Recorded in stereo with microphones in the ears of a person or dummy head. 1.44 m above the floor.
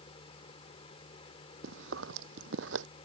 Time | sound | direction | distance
0.0 | a fan | 35° left (ahead or behind) | ?
1.6 | chewing | 80° right | ?